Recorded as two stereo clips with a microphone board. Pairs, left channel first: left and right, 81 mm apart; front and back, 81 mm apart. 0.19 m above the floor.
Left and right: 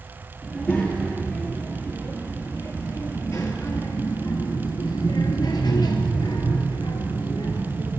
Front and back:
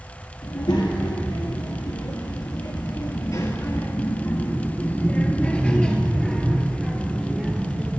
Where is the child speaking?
Straight ahead, 3 m; by 8.0 s 110° left, 2.5 m.